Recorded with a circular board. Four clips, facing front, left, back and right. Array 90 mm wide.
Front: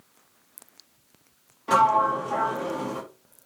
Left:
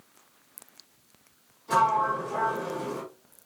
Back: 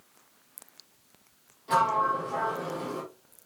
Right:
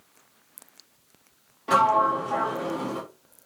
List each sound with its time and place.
1.7 s a sliding door: 50° right, 5 m